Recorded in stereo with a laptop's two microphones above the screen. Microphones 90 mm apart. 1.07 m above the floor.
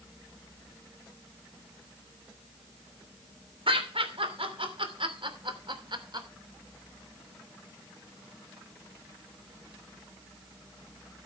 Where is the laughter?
85° right, 3 m; by 6.3 s 50° right (ahead or behind), 3 m.